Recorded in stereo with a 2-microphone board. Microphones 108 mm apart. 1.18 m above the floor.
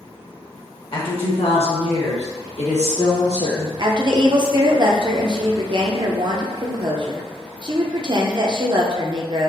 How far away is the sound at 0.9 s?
About 1.2 m.